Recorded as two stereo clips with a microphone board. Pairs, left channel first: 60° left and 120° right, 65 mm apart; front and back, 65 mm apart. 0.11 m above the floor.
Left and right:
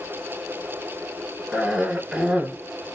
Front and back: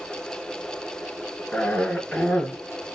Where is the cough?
55° right, 1.5 m.